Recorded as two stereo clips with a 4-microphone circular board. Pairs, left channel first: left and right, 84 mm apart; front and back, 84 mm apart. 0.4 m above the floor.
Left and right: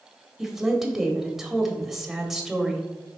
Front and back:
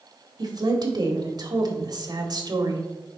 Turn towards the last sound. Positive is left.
turn(degrees=-175)